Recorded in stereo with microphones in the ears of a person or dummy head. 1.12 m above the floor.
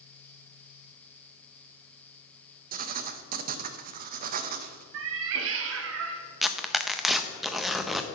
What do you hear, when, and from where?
2.7 s writing: 50° right (ahead or behind), 0.6 m
4.9 s a cat meowing: 70° right (ahead or behind), 0.7 m
6.4 s tearing paper: 5° right (ahead or behind), 0.5 m